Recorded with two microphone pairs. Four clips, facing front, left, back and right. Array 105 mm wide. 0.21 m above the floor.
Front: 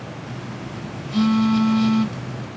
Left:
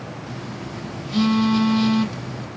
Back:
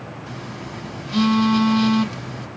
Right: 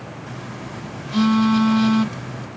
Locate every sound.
0.3 s a phone buzzing: 135° right, 1.9 m